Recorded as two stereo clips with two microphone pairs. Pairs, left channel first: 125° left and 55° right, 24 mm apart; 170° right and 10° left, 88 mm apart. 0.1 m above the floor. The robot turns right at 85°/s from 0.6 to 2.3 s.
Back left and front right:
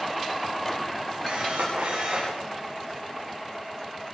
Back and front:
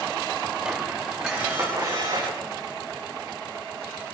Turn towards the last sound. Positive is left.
turn(degrees=10)